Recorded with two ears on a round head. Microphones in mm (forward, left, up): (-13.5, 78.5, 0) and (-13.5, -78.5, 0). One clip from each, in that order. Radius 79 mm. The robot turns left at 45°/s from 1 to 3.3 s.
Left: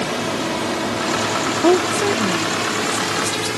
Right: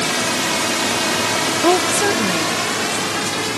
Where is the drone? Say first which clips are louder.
Right 3 dB; 55° right (ahead or behind); by 3.6 s 25° right (ahead or behind).